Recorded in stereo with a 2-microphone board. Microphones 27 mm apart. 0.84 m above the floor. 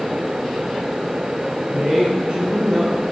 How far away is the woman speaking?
About 2.5 m.